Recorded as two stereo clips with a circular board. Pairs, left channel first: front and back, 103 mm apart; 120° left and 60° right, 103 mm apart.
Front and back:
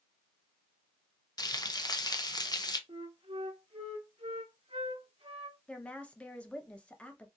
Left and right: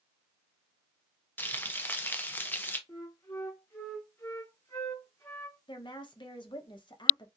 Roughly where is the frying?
Ahead left.